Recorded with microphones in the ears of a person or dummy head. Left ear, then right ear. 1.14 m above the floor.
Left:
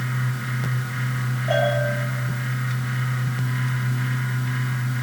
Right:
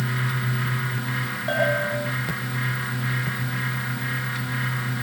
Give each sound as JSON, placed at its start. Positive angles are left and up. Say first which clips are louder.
{"t": 1.5, "sound": "a bell", "louder": "left 1 dB", "side_deg": -45, "distance_m": 9.0}